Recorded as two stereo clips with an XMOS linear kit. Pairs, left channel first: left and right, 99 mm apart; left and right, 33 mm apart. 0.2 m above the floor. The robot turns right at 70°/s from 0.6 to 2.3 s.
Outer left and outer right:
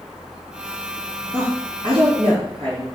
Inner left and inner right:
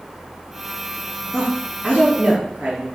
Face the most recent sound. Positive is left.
turn(degrees=-70)  # may be behind; listen again after turning